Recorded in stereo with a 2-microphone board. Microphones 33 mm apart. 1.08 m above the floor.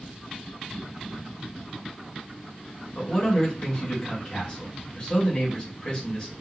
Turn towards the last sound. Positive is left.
turn(degrees=25)  # may be behind; listen again after turning